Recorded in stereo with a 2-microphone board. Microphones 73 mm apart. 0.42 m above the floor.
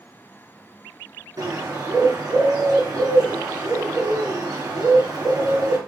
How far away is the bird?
About 2.5 m.